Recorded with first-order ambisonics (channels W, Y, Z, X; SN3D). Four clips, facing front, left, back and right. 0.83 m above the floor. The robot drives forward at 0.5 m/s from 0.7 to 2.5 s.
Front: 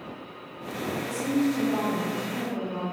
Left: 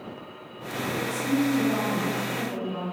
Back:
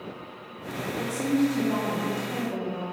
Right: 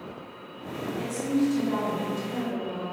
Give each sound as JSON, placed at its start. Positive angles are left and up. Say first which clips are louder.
{"t": 1.0, "sound": "a woman speaking", "louder": "even, back 2 dB", "azimuth_deg": -160, "distance_m": 0.8}